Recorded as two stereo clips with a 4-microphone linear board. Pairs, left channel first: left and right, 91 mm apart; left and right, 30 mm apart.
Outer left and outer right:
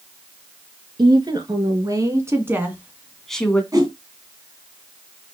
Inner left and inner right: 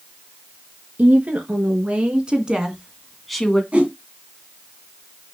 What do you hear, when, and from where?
1.0 s a woman speaking: 55° right (ahead or behind), 3.5 m; by 3.6 s 15° left (ahead or behind), 1.9 m
3.7 s a whoosh: 40° right (ahead or behind), 2.5 m